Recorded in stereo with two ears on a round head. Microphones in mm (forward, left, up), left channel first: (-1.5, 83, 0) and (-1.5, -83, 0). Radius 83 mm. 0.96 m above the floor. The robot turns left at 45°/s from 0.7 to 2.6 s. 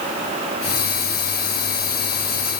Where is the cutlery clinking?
I don't hear cutlery clinking.